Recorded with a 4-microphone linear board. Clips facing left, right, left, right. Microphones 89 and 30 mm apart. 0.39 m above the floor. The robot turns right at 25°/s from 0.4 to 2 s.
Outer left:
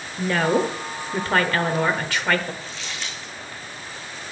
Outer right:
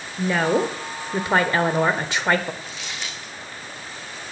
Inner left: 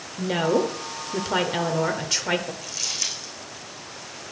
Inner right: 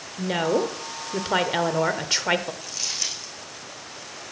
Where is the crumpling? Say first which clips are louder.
Even, inner left 1 dB; 15° right (ahead or behind), 4.5 m.